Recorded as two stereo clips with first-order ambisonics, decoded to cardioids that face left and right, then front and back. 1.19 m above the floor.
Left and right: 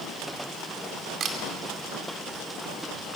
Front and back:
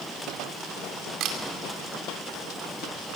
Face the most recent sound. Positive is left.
turn(degrees=-145)